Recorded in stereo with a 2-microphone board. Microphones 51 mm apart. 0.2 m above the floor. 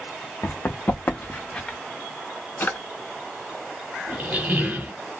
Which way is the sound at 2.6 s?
50° left (ahead or behind).